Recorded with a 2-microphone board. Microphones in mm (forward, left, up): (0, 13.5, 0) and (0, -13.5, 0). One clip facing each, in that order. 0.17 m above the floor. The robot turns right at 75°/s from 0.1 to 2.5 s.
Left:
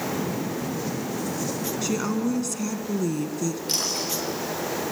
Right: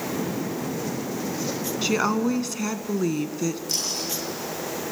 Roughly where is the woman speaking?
Behind right.